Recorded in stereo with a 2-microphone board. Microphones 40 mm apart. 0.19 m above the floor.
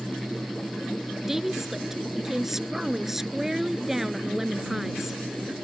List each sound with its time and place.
1.3 s a woman speaking: 10° right (ahead or behind)